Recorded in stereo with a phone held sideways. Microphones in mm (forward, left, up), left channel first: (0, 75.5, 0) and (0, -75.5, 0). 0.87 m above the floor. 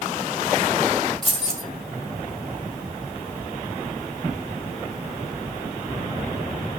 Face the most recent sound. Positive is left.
turn(degrees=5)  # may be behind; listen again after turning